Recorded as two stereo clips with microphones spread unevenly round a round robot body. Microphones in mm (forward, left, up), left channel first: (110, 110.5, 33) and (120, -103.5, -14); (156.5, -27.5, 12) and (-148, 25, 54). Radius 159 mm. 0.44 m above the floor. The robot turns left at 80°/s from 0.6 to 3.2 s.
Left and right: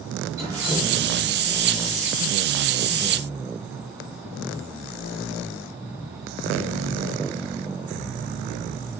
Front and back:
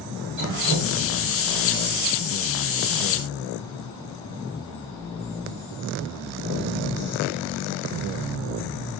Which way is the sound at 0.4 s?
170° right.